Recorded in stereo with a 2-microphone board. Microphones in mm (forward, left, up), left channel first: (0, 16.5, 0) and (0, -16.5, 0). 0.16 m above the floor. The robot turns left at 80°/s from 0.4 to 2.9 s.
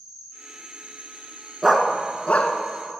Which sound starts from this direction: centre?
A dog barking, at 1.6 s.